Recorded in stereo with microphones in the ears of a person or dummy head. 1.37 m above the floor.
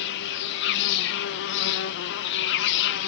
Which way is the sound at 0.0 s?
70° left (ahead or behind).